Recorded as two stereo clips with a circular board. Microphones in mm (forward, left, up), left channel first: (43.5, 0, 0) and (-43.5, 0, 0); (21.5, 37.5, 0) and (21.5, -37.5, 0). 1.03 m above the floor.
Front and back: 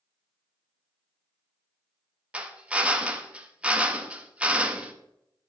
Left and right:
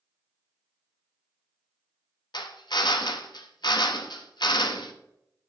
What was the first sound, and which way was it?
A drill, 105° left.